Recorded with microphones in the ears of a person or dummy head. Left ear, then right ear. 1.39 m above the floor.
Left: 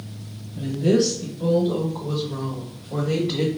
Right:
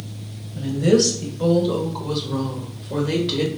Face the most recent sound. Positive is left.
turn(degrees=-60)  # may be behind; listen again after turning